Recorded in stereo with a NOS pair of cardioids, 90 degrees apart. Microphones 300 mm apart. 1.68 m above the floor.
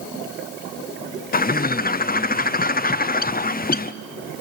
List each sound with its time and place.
1.3 s a bird: 30° left, 0.6 m